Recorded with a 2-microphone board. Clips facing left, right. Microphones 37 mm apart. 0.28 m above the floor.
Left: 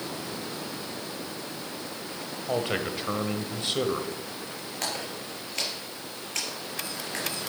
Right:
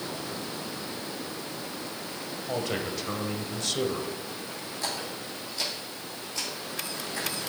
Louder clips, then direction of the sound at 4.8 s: Left 1 dB; 70° left (ahead or behind).